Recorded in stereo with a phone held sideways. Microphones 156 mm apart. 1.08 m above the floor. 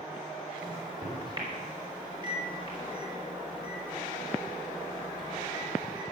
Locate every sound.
0.6 s a microwave: 35° right (ahead or behind), 4 m